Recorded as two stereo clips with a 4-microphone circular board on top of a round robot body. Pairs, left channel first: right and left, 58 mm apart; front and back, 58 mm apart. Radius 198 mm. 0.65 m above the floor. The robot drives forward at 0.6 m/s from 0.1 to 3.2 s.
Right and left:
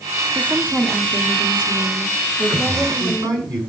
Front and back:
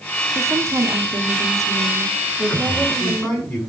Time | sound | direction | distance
0.3 | a woman speaking | 150° left | 1.7 m
2.4 | a man speaking | 75° left | 7.5 m